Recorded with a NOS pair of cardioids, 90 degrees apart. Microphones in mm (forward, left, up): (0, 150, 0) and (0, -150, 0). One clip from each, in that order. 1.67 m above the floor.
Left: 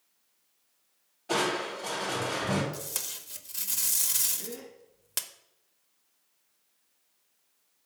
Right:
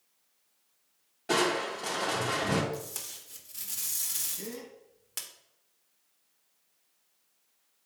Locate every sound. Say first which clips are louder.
1.3 s crushing: right 1 dB; 60° right, 3 m
2.7 s tape being pulled: left 2 dB; 30° left, 1.0 m
4.4 s a gasp: even; 45° right, 3 m